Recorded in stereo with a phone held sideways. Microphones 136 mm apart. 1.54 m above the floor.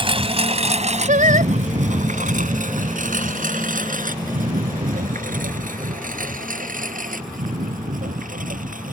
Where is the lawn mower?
40° right (ahead or behind); by 8.9 s 80° right.